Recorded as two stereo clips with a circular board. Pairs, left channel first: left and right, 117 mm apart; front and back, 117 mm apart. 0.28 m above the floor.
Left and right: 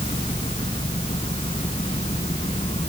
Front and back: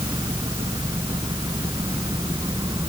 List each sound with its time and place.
0.0 s an engine running: 125° left